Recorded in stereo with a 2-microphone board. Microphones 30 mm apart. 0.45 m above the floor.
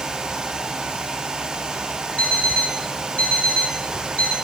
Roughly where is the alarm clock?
Left.